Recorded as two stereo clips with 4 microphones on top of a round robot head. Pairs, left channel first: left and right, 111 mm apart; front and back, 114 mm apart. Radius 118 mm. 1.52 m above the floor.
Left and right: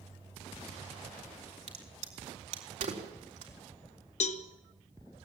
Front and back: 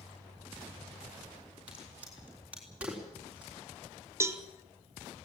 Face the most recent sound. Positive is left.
turn(degrees=110)